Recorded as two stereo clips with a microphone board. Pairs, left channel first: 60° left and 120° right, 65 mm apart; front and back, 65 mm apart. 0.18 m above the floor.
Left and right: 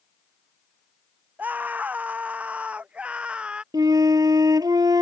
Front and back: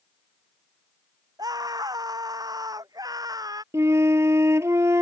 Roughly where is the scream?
Behind.